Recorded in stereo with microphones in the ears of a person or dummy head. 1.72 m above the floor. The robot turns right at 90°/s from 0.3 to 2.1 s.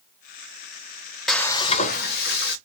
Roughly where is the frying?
Ahead.